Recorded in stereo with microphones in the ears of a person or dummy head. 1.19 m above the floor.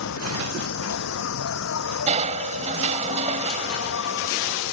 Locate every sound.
0.0 s an insect: 85° left
2.1 s crushing: 40° right (ahead or behind)